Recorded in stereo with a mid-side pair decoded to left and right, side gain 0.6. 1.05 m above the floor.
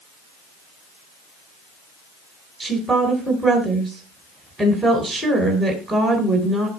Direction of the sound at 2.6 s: 5° right.